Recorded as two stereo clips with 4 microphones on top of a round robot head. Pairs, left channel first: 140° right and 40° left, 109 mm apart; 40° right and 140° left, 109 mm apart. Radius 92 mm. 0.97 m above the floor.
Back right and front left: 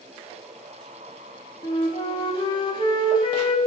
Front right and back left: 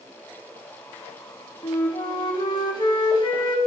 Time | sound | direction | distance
1.6 | a flute | 90° right | 1.1 m